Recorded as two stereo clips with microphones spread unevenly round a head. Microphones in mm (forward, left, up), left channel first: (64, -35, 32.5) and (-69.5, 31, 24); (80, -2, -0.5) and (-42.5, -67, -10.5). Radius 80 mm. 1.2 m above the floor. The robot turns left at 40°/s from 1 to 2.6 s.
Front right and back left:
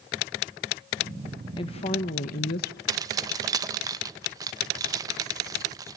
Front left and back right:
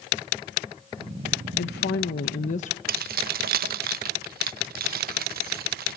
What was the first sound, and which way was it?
A woman speaking, 35° left.